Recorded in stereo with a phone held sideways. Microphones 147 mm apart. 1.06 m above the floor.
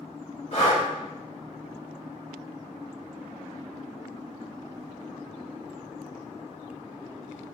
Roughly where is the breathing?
Left.